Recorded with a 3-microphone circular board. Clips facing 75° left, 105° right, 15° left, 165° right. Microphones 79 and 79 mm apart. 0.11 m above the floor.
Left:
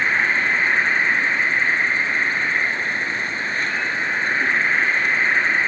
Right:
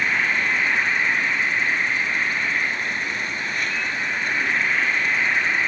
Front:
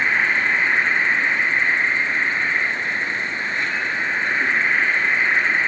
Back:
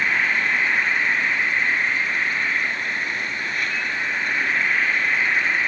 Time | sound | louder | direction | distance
0.0 | an insect | left 2 dB, front 2 dB | 55° left | 1.0 m